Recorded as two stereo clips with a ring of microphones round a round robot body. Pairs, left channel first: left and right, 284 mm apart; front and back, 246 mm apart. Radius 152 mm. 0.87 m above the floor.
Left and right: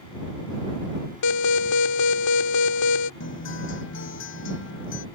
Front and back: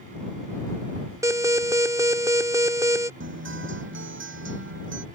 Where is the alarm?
105° left.